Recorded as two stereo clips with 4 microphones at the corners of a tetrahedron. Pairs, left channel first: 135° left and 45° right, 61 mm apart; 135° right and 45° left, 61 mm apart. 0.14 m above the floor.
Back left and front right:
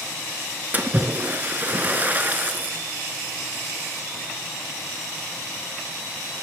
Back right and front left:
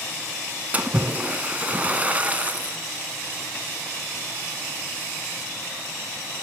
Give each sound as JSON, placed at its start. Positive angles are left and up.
{"t": 0.7, "sound": "a splash", "azimuth_deg": -5, "distance_m": 0.7}